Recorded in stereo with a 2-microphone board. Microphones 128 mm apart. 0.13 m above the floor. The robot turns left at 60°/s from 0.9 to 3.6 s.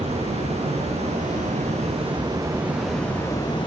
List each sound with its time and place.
0.0 s running water: 60° right, 4.5 m; by 3.7 s 140° left, 4.5 m